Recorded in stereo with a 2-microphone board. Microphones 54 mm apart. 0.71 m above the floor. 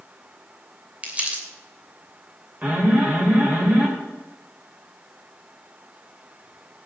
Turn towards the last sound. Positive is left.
turn(degrees=-30)  # may be behind; listen again after turning